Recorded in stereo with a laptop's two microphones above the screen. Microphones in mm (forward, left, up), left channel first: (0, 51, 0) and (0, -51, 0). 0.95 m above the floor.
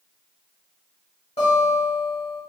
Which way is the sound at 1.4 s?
70° left (ahead or behind).